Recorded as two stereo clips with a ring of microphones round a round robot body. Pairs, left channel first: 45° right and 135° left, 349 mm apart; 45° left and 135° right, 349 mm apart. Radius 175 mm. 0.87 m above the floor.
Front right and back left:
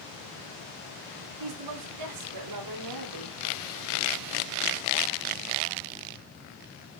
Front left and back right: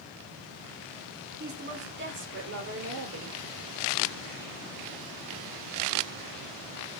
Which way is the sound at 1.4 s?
160° left.